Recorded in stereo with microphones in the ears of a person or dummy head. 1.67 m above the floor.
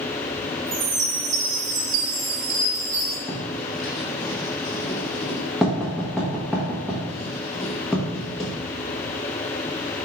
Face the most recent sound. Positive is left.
turn(degrees=-5)  # may be behind; listen again after turning